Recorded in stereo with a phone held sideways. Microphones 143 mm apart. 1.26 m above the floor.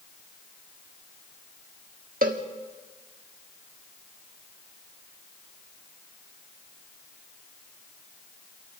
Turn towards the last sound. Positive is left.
turn(degrees=-80)